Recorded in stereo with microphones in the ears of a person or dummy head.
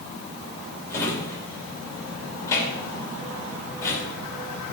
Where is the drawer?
20° left (ahead or behind), 2.5 m.